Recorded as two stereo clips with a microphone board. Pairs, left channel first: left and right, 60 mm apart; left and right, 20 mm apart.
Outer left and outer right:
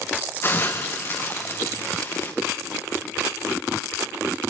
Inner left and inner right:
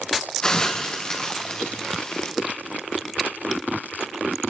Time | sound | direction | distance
0.4 | a hiss | 40° left (ahead or behind) | 3 m